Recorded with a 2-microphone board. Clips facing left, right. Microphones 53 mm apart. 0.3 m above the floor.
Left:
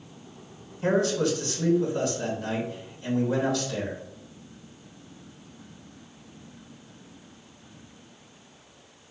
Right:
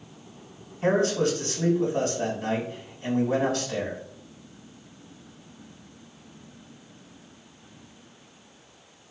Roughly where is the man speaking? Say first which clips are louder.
Right 1 dB; right.